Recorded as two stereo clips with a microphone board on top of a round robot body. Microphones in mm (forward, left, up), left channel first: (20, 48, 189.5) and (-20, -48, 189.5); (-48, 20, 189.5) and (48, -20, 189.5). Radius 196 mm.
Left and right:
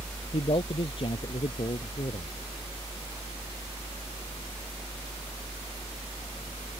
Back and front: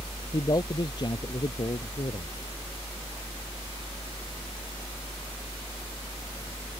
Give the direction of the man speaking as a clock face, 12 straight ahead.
9 o'clock.